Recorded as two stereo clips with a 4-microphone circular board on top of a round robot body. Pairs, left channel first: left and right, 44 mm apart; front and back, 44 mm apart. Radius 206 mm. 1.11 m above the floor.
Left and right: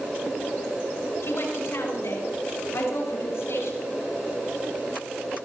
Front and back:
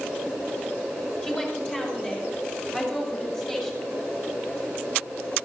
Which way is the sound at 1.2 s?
60° left.